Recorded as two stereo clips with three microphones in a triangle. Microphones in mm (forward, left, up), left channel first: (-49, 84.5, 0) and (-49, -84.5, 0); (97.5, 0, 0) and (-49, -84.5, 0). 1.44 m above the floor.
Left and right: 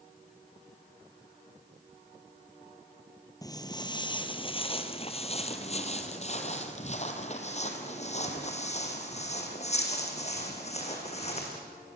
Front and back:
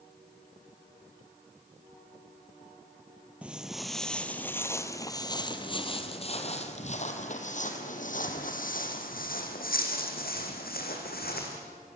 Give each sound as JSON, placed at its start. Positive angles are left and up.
{"t": 3.4, "sound": "footsteps", "azimuth_deg": 135, "distance_m": 1.6}